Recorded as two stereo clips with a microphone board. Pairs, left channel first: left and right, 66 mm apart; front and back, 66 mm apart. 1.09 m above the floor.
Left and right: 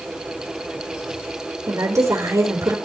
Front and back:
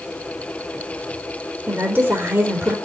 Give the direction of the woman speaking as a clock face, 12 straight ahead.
4 o'clock.